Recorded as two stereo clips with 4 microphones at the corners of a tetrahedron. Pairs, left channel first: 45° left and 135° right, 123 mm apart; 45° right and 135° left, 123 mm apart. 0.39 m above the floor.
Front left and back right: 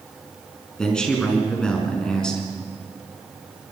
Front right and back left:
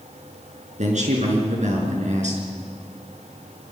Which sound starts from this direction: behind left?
A man speaking, at 0.8 s.